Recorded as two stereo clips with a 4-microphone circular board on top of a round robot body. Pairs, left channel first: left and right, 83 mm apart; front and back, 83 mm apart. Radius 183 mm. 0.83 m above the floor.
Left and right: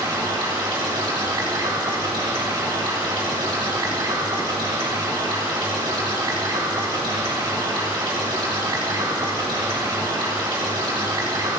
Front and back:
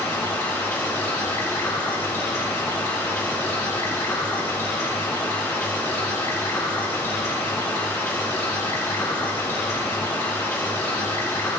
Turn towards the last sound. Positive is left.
turn(degrees=-60)